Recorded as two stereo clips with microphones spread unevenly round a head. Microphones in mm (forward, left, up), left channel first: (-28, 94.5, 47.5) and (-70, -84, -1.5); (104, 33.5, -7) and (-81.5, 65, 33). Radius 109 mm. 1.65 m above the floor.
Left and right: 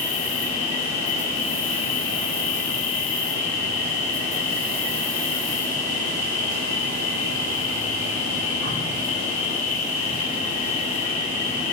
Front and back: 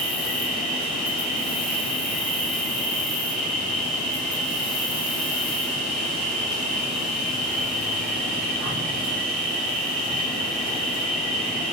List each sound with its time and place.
0.0 s an insect: 80° left, 7 m